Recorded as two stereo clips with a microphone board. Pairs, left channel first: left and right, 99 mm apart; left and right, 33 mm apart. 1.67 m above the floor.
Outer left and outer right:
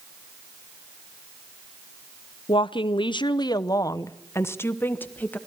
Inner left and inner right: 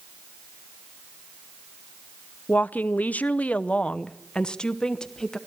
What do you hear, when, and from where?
2.5 s a woman speaking: 55° left (ahead or behind), 0.7 m; by 5.4 s 15° left (ahead or behind), 1.6 m